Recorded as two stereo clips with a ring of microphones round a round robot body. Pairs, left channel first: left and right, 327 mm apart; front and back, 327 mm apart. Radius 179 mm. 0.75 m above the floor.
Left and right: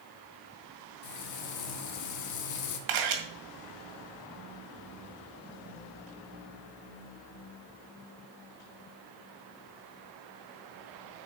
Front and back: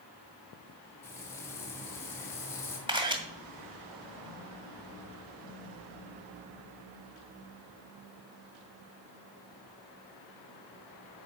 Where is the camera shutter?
105° right, 2 m.